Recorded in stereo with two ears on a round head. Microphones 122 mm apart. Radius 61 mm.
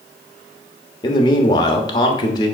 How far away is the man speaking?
About 1.2 m.